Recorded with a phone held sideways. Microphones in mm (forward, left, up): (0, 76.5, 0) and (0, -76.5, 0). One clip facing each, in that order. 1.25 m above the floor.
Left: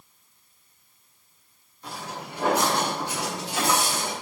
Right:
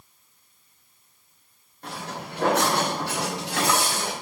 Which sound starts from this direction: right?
Footsteps, at 1.8 s.